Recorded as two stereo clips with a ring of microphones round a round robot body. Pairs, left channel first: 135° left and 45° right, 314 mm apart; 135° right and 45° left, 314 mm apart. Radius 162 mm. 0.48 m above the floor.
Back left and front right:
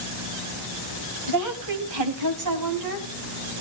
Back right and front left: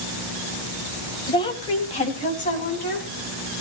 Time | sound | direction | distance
1.3 | a woman speaking | 60° right | 3 m